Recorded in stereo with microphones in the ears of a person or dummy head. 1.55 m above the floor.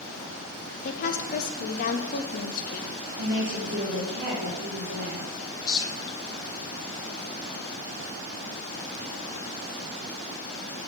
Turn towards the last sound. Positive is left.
turn(degrees=20)  # may be behind; listen again after turning